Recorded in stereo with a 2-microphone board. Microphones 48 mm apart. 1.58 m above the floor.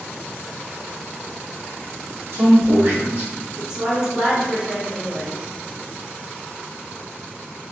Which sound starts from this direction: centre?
A woman speaking, at 3.7 s.